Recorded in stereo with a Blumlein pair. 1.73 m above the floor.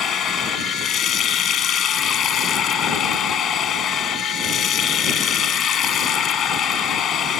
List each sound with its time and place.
0.0 s running water: 25° left